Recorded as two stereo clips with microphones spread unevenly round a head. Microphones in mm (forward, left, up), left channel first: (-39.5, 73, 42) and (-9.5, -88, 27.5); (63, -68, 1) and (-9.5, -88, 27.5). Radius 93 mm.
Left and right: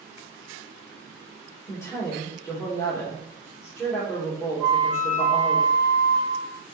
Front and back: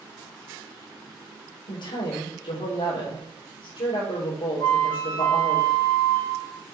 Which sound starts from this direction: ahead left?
A woman speaking, at 1.7 s.